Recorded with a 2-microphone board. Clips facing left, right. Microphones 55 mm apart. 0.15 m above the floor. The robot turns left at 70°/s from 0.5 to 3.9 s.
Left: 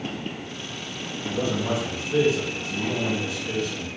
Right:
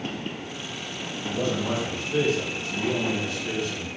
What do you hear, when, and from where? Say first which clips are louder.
1.2 s a man speaking: left 1 dB; 140° left, 2 m; by 3.9 s 45° right, 2 m